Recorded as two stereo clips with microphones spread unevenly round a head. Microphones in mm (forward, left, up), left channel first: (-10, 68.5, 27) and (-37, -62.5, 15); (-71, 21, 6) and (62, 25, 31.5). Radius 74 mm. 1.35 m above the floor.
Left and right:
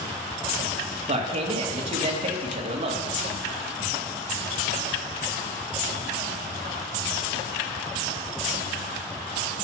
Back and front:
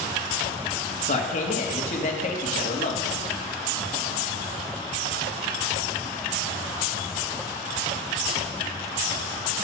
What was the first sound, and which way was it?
A man speaking, 145° right.